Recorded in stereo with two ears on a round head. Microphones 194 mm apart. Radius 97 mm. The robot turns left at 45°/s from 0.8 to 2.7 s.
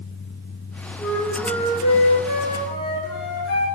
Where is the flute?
Straight behind, 7 m; by 3.7 s 100° left, 7 m.